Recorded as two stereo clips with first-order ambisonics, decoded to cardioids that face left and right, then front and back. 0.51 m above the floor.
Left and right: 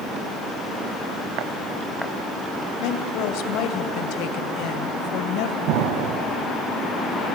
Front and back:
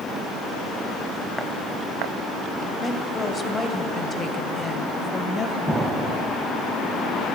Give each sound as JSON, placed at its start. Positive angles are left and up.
{"t": 2.8, "sound": "a woman speaking", "azimuth_deg": 75, "distance_m": 2.0}
{"t": 5.7, "sound": "an explosion", "azimuth_deg": -95, "distance_m": 1.2}